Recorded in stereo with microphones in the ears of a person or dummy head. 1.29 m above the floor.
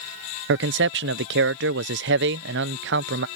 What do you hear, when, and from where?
0.5 s a man speaking: 60° right (ahead or behind)